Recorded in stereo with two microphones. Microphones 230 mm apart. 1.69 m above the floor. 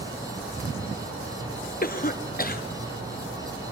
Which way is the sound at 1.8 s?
40° left (ahead or behind).